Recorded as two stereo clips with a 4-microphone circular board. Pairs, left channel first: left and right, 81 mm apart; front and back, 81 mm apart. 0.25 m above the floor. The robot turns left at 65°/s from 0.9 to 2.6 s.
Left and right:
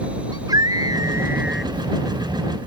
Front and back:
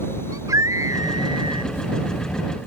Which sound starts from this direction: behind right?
A scream, at 0.3 s.